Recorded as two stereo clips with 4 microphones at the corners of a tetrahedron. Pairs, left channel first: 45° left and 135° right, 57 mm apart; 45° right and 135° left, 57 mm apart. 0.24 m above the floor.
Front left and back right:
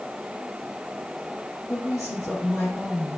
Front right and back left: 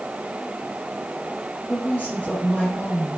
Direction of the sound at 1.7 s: 15° left.